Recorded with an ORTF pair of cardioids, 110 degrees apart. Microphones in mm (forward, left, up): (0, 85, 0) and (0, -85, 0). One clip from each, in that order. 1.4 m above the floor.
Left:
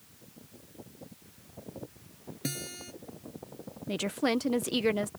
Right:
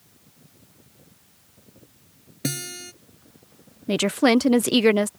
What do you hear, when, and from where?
2.4 s a guitar: 45° right
3.9 s a woman speaking: 45° right